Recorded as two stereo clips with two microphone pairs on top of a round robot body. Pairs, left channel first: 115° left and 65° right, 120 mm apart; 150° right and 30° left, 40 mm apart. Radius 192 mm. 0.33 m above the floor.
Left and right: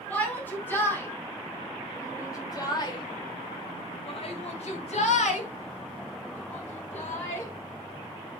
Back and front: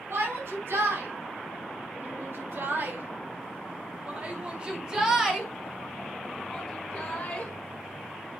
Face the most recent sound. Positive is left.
turn(degrees=145)